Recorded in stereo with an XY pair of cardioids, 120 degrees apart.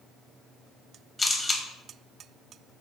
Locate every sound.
1.2 s a camera shutter: 20° left, 0.6 m